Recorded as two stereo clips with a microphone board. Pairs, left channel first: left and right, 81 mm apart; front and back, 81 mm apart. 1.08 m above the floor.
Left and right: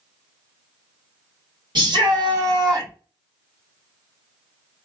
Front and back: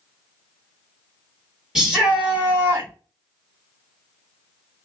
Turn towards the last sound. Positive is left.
turn(degrees=-130)